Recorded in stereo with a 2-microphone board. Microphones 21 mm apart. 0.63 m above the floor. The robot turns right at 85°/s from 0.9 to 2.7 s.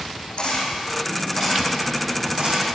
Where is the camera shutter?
55° left (ahead or behind), 5.5 m; by 2.6 s 85° right, 5.5 m.